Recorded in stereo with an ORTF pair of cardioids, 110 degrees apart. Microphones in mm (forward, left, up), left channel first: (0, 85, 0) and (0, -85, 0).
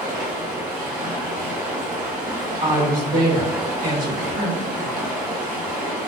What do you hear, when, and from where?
0.0 s running water: 50° right, 1.1 m
2.6 s a woman speaking: 55° right, 1.1 m